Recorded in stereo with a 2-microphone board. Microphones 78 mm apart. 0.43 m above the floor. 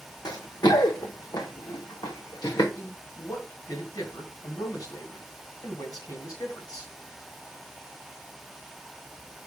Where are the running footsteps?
70° left (ahead or behind), 1.1 m; by 2.6 s 80° left, 2.5 m.